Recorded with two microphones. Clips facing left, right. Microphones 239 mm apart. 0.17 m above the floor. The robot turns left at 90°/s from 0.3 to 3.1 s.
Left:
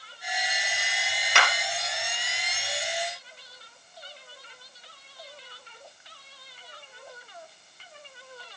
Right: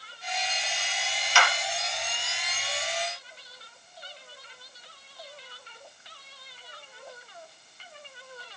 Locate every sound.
1.4 s a clap: 65° left (ahead or behind), 3.5 m; by 1.5 s 70° left (ahead or behind), 3.5 m